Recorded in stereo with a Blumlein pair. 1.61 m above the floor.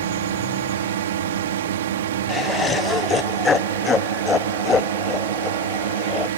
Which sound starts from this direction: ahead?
Laughter, at 2.3 s.